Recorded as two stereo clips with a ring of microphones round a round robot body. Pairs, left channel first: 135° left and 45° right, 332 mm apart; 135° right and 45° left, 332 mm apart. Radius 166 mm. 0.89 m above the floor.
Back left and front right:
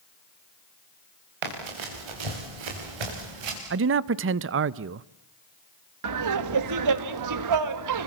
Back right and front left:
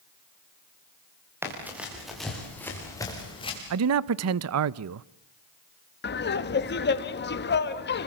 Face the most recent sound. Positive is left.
turn(degrees=-75)